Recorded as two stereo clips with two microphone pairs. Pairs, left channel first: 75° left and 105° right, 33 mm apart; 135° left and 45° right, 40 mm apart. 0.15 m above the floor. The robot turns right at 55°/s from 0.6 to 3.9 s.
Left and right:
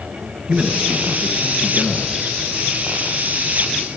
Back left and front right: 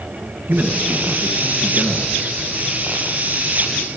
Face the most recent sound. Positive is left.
turn(degrees=125)